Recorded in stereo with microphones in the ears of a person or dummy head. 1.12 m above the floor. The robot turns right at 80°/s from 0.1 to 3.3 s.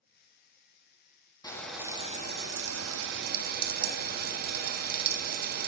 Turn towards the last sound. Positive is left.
turn(degrees=-55)